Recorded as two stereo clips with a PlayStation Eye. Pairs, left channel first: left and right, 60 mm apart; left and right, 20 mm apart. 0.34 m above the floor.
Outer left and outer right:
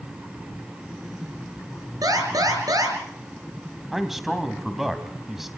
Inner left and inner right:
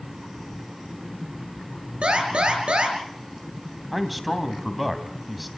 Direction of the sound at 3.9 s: 5° right (ahead or behind).